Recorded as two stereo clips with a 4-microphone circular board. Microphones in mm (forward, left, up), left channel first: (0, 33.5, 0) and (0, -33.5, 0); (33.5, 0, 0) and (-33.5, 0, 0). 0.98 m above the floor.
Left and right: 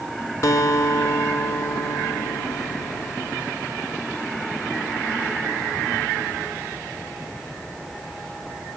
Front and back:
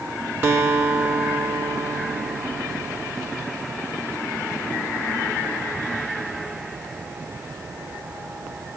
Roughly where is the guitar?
Behind left.